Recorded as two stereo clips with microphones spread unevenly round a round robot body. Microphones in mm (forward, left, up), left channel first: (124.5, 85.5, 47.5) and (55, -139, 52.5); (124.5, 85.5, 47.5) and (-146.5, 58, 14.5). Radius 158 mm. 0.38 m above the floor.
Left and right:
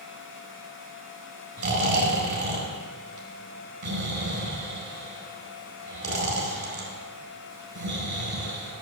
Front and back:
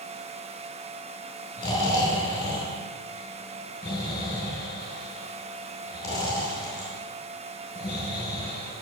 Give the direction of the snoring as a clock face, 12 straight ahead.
2 o'clock.